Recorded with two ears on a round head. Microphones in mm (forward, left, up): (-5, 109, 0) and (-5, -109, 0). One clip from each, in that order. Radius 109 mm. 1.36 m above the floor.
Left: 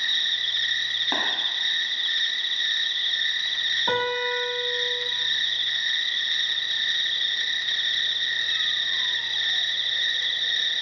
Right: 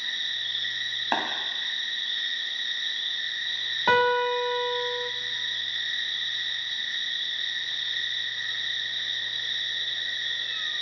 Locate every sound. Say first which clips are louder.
0.0 s an insect: left 6 dB; 40° left (ahead or behind), 0.7 m
1.1 s tapping: right 2 dB; 35° right (ahead or behind), 1.5 m
3.9 s a piano: right 3 dB; 65° right (ahead or behind), 0.9 m